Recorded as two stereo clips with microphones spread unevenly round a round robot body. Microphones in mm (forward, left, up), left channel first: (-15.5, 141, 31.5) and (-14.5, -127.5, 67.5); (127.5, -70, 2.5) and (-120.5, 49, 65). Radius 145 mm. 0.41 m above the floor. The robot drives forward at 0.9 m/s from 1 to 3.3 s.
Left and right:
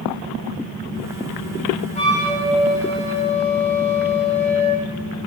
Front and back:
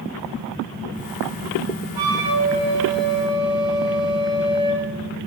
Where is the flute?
155° left, 7 m; by 4.9 s 160° left, 8.5 m.